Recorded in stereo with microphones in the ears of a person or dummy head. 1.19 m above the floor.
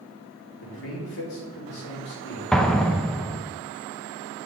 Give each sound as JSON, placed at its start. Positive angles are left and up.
{"t": 0.6, "sound": "a man speaking", "side_deg": 80, "distance_m": 5.0}
{"t": 2.5, "sound": "an explosion", "side_deg": 5, "distance_m": 0.9}